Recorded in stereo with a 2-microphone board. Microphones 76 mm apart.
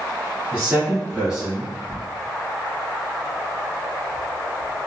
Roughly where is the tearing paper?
Left.